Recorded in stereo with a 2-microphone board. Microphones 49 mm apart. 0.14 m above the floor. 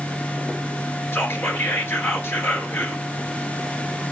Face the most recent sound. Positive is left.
turn(degrees=55)  # may be behind; listen again after turning